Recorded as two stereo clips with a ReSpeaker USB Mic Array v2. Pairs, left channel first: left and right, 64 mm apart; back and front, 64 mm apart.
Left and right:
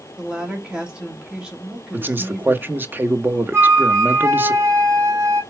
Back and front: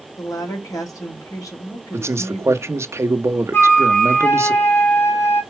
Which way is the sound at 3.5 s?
135° right.